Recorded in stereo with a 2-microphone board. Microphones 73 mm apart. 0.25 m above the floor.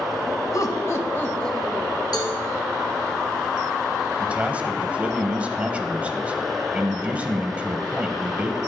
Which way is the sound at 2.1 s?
60° left (ahead or behind).